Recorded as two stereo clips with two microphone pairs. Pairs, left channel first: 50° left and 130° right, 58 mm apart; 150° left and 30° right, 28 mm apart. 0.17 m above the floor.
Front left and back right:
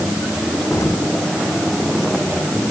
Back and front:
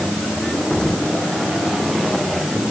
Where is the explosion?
80° left.